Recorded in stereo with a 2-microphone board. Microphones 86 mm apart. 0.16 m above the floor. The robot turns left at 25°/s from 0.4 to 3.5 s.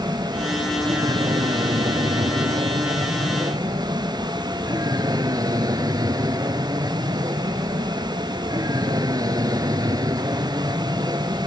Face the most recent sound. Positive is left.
turn(degrees=-130)